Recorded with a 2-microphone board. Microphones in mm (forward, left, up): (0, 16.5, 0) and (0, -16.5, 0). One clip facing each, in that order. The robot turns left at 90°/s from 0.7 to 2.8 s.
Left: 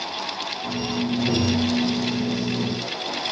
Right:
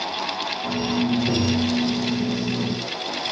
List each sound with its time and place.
1.3 s tapping: 140° right, 5.5 m; by 1.7 s straight behind, 5.5 m